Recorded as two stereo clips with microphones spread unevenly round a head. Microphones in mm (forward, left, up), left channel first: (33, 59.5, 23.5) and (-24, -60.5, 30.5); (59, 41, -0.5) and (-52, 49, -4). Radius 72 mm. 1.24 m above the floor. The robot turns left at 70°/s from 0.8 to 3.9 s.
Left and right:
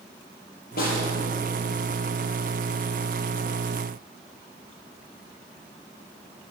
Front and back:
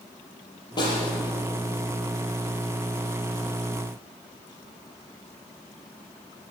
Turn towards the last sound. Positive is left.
turn(degrees=-170)